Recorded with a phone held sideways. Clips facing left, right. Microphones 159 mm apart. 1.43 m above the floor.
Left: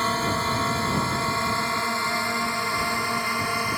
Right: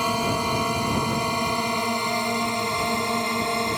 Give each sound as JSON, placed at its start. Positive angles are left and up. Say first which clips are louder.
{"t": 0.0, "sound": "a drone", "louder": "right 2 dB", "side_deg": -15}